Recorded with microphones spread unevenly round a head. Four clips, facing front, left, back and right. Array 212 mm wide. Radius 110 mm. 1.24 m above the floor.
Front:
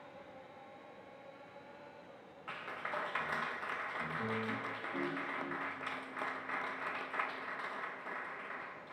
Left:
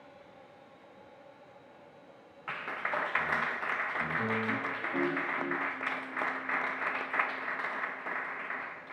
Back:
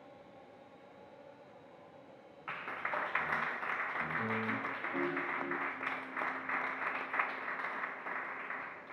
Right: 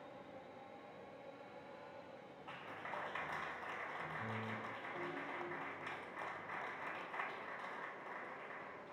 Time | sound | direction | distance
2.5 | a clap | 95° left | 0.9 m